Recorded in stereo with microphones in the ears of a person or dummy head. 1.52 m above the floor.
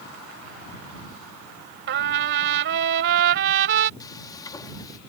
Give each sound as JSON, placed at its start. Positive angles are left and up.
{"t": 1.9, "sound": "a trumpet", "side_deg": -60}
{"t": 4.0, "sound": "frying", "side_deg": 25}